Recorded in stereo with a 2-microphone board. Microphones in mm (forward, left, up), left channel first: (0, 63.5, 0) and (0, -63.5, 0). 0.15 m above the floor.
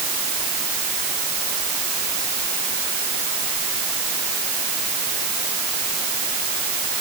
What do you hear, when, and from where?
Only background noise.